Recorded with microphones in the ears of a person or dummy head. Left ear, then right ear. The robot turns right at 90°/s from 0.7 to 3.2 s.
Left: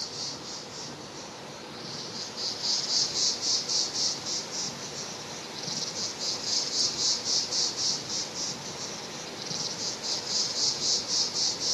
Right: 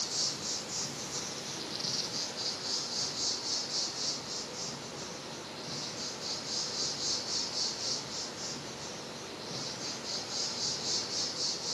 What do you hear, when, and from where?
0.0 s an insect: 135° right, 0.9 m; by 11.7 s 90° left, 0.9 m